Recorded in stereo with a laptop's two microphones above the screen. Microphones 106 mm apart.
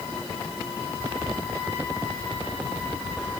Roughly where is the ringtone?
No ringtone in this recording.